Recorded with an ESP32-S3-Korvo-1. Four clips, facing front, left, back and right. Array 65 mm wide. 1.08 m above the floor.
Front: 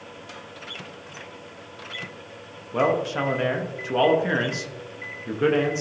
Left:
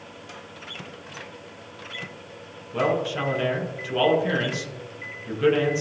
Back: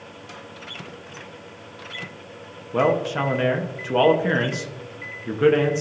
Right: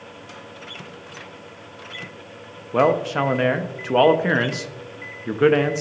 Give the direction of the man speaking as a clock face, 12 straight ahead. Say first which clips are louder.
Right 6 dB, back 2 dB; 3 o'clock.